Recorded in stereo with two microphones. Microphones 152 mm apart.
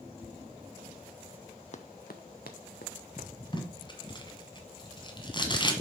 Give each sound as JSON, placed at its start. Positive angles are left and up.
{"t": 1.7, "sound": "running footsteps", "side_deg": 50, "distance_m": 0.5}
{"t": 3.5, "sound": "tape being pulled", "side_deg": 30, "distance_m": 1.7}